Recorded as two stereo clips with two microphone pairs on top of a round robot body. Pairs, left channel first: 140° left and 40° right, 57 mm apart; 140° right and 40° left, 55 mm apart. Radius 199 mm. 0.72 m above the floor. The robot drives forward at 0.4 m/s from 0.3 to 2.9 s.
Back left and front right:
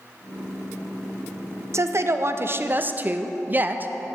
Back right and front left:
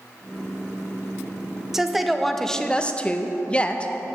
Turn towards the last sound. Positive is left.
turn(degrees=-80)